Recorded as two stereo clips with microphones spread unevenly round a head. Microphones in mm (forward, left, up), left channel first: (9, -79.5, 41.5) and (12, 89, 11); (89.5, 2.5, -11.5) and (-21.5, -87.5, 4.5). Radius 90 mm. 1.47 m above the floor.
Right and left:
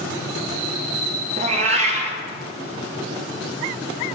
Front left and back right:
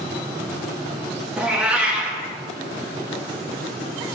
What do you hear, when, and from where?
1.4 s a cat meowing: 145° left, 1.0 m